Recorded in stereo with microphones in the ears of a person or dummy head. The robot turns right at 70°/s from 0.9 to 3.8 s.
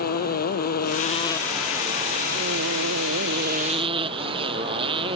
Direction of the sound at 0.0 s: 130° left.